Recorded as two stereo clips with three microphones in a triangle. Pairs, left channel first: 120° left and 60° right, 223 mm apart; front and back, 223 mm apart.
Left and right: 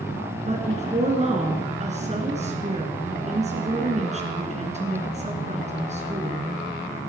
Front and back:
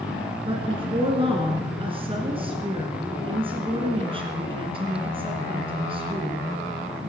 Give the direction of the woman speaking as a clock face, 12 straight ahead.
4 o'clock.